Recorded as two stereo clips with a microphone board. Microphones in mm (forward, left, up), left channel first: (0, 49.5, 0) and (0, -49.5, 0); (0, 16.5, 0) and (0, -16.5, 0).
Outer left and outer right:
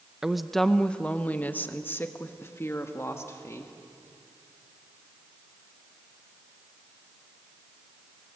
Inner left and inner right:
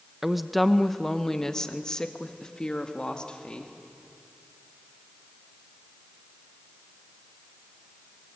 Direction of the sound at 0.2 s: 5° right (ahead or behind).